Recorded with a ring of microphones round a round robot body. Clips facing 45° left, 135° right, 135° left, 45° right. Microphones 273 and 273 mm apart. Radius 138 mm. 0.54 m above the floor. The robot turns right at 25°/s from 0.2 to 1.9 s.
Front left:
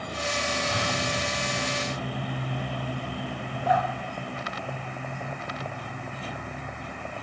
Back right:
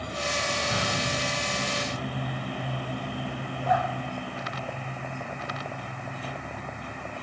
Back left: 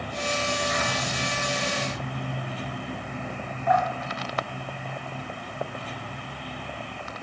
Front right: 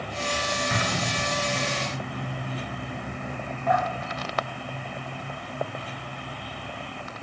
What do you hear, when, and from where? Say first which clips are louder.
0.7 s an explosion: even, front right 1 dB; 65° right, 7 m; by 1.6 s 40° right, 7 m
3.7 s dripping: front left 1 dB, back left 1 dB; 10° left, 9 m